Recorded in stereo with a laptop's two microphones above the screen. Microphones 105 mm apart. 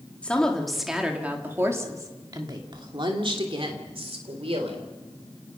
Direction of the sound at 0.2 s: 10° left (ahead or behind).